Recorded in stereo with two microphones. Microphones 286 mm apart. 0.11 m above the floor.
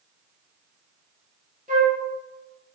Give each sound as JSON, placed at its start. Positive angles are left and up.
{"t": 1.7, "sound": "a flute", "side_deg": -30, "distance_m": 1.0}